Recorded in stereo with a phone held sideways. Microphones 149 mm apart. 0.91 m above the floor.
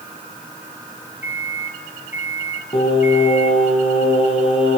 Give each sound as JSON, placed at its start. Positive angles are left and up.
{"t": 1.2, "sound": "a microwave", "side_deg": -15, "distance_m": 1.8}
{"t": 2.7, "sound": "singing", "side_deg": 40, "distance_m": 6.5}